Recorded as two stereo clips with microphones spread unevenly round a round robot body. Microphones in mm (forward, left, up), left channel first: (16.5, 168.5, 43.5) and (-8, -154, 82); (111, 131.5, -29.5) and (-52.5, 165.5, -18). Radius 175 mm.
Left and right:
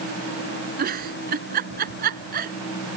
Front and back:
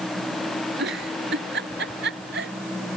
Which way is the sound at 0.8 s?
160° right.